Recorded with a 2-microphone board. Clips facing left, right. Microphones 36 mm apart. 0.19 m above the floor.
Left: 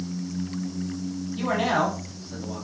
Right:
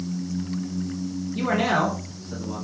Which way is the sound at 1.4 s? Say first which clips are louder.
Right 1 dB; 45° right (ahead or behind).